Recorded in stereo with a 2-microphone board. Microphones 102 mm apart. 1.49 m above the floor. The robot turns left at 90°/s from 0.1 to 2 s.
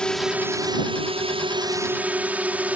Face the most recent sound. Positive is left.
turn(degrees=-15)  # may be behind; listen again after turning